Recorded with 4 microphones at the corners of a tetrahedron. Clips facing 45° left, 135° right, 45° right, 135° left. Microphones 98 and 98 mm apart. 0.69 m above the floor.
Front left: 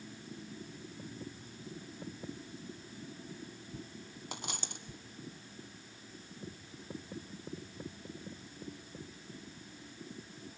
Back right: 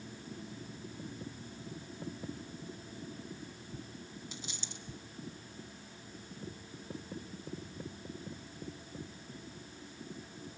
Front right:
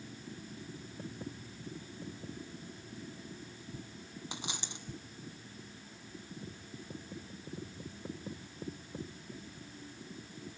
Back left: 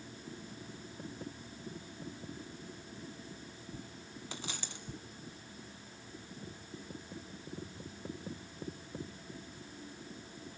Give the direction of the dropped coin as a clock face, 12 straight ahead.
11 o'clock.